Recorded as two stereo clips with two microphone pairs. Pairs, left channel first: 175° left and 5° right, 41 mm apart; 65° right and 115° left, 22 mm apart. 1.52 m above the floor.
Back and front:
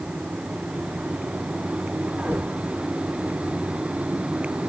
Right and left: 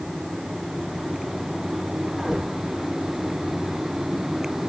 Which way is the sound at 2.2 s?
35° left.